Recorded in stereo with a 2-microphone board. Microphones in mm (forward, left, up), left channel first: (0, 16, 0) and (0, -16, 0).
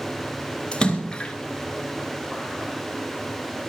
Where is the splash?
25° left (ahead or behind), 2 m.